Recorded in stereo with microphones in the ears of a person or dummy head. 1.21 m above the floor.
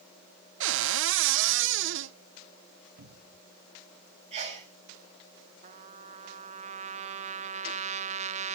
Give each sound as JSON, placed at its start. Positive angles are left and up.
{"t": 0.6, "sound": "a cupboard door", "side_deg": -65, "distance_m": 0.9}
{"t": 3.0, "sound": "a cupboard door", "side_deg": -60, "distance_m": 2.0}
{"t": 4.3, "sound": "a sneeze", "side_deg": -35, "distance_m": 6.0}
{"t": 5.6, "sound": "a trumpet", "side_deg": -35, "distance_m": 1.0}